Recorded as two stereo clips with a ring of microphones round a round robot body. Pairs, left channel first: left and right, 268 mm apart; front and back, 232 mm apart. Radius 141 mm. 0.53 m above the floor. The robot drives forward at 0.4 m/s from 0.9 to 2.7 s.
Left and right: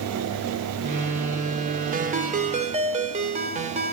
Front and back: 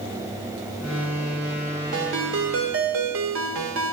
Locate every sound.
1.9 s a ringtone: 145° right, 1.3 m; by 3.9 s 155° right, 1.5 m